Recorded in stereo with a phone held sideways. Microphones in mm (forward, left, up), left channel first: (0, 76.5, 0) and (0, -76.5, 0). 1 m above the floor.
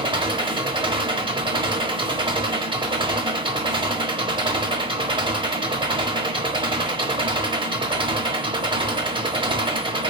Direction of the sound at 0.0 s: 35° right (ahead or behind).